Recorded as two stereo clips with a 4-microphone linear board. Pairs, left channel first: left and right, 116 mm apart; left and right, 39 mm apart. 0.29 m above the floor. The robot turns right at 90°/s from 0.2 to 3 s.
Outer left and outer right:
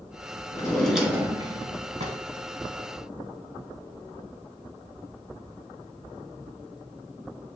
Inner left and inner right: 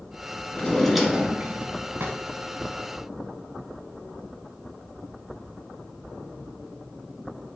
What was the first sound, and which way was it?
A drawer, 145° left.